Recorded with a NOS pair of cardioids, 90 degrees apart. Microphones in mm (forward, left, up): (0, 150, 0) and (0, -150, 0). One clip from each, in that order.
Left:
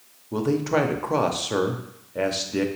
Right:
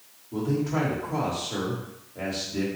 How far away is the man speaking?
About 0.8 m.